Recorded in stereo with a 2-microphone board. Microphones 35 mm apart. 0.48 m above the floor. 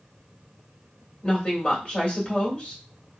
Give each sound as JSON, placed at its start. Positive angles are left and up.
{"t": 1.2, "sound": "a woman speaking", "side_deg": 35, "distance_m": 1.6}